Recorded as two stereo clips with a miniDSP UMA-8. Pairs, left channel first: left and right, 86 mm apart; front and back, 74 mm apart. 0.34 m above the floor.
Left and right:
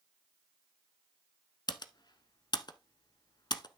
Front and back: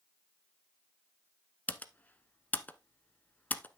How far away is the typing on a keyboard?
About 0.8 m.